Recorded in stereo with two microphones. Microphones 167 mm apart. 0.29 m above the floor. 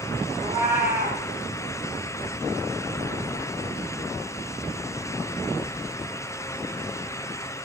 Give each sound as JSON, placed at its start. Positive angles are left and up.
{"t": 0.4, "sound": "a cat meowing", "side_deg": -25, "distance_m": 4.5}